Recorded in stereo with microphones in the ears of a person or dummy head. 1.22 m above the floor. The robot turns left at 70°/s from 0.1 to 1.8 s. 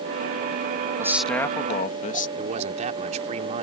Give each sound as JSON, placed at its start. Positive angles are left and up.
{"t": 1.0, "sound": "a man speaking", "azimuth_deg": -165}
{"t": 2.4, "sound": "a man speaking", "side_deg": -40}